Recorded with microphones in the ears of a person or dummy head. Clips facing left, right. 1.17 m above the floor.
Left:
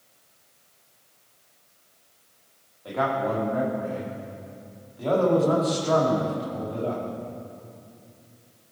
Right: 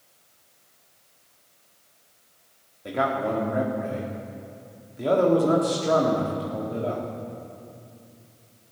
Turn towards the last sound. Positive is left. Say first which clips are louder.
# even
turn(degrees=-25)  # may be behind; listen again after turning